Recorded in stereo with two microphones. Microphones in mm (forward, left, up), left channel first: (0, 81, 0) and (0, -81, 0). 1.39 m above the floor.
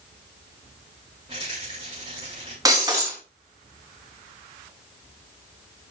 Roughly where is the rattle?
Right.